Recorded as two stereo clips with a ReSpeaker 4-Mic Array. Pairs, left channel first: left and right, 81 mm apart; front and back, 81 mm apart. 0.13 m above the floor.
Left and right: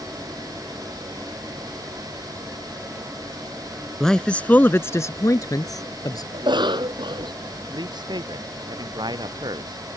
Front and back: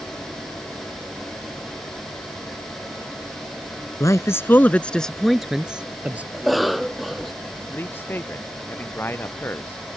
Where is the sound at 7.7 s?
65° right.